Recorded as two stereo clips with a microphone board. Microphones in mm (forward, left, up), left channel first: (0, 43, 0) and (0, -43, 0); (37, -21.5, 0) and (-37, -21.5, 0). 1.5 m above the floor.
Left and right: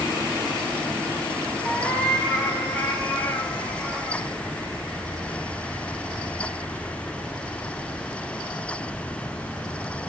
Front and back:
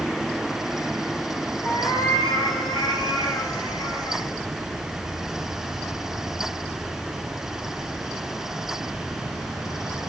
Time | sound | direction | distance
1.6 | a cat meowing | 15° left | 6.5 m